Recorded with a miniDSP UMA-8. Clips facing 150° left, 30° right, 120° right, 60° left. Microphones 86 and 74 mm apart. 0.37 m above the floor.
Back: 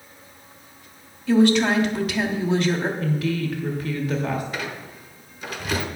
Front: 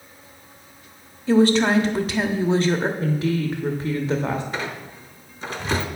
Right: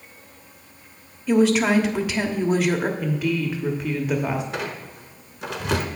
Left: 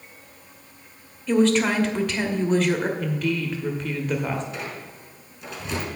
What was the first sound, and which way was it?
A woman speaking, 45° right.